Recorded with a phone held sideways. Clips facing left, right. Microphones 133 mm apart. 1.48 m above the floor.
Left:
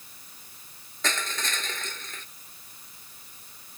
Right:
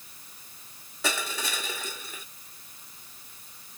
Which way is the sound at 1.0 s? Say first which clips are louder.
Right 1 dB; 10° right (ahead or behind).